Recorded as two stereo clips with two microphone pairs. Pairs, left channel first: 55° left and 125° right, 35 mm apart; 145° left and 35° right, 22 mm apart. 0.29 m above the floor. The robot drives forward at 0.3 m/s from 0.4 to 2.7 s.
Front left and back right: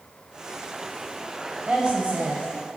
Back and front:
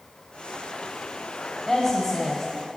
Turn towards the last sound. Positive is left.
turn(degrees=-160)